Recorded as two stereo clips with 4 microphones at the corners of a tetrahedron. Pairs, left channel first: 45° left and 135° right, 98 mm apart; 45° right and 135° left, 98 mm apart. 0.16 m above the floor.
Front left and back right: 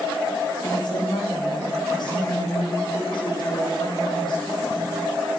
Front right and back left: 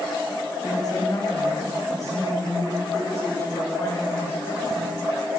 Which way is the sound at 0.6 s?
Straight ahead.